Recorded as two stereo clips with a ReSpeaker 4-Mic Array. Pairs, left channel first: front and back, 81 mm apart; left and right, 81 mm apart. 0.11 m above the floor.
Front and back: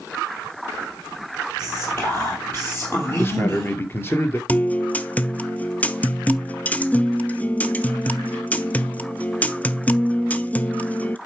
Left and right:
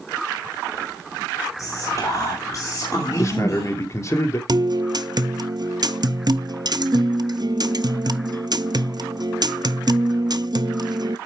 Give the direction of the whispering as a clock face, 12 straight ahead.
10 o'clock.